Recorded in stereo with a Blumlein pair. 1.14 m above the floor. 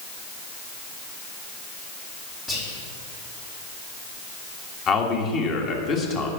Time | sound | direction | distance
2.5 | whispering | 30° left | 1.2 m
4.9 | a man speaking | 30° left | 1.6 m